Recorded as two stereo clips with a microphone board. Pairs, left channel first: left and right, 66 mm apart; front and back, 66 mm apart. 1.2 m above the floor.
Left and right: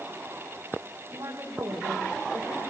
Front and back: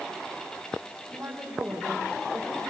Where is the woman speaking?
105° right, 5.5 m.